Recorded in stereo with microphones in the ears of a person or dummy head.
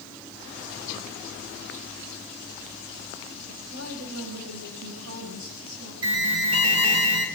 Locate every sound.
3.5 s a woman speaking: 85° right, 5.5 m; by 5.9 s 75° right (ahead or behind), 9 m
6.0 s an alarm: 75° right (ahead or behind), 5 m